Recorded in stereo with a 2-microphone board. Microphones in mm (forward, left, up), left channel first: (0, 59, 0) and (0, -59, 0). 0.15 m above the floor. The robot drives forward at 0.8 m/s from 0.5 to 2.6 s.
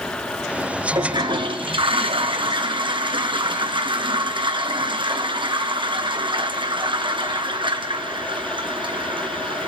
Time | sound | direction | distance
0.9 | a toilet flushing | 40° right (ahead or behind) | 1.5 m